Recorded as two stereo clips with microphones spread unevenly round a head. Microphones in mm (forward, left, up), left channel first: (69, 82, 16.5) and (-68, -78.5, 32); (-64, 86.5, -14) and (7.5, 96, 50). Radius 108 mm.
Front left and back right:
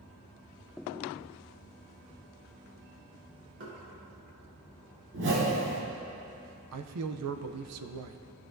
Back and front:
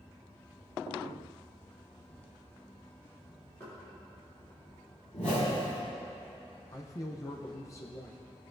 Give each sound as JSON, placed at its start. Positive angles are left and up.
{"t": 3.6, "sound": "knocking", "azimuth_deg": -95, "distance_m": 3.0}
{"t": 5.1, "sound": "a whoosh", "azimuth_deg": -110, "distance_m": 2.5}
{"t": 6.7, "sound": "a man speaking", "azimuth_deg": -120, "distance_m": 0.6}